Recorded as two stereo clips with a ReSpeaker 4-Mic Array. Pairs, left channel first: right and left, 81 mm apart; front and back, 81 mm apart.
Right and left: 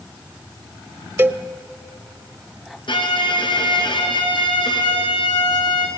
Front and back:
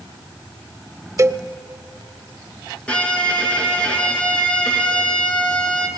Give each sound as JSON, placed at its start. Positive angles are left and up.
{"t": 1.2, "sound": "a cowbell", "azimuth_deg": 145, "distance_m": 0.5}
{"t": 2.9, "sound": "a violin", "azimuth_deg": -75, "distance_m": 2.5}